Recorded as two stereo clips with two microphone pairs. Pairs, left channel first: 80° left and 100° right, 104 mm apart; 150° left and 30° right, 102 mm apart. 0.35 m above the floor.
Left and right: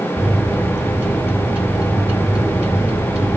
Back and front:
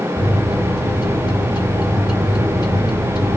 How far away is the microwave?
About 2.5 m.